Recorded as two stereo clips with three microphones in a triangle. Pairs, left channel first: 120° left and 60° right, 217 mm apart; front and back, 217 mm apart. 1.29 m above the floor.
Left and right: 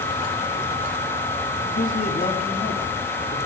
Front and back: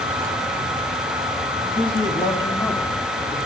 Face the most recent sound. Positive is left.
turn(degrees=70)